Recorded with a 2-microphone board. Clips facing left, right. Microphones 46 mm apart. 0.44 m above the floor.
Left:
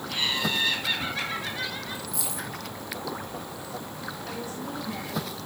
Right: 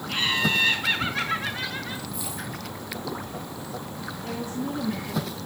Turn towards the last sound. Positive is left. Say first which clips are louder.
# right 7 dB
turn(degrees=-55)  # may be behind; listen again after turning